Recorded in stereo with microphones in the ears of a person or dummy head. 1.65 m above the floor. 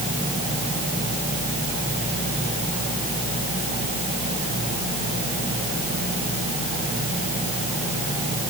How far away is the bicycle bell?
No bicycle bell in this recording.